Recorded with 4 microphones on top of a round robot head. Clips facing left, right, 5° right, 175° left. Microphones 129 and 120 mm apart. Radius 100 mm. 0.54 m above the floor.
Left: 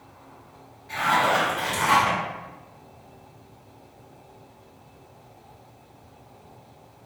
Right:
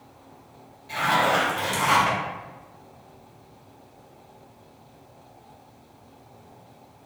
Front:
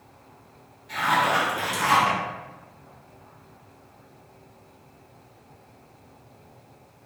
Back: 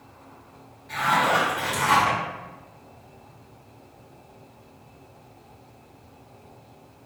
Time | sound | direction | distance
0.9 | a zipper | 60° right | 1.3 m